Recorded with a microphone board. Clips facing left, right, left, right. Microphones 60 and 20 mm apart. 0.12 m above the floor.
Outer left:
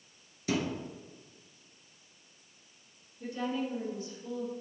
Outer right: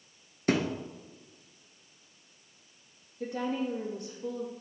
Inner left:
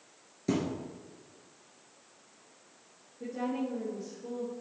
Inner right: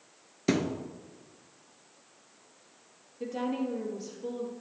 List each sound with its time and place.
0.5 s a thud: 50° right (ahead or behind), 0.9 m
3.2 s a woman speaking: 65° right (ahead or behind), 3.5 m